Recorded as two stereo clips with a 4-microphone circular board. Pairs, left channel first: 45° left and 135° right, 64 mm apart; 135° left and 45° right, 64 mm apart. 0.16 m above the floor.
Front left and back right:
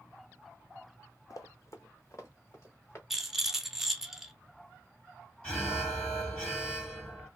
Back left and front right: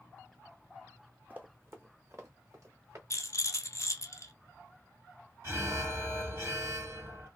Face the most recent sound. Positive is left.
turn(degrees=-25)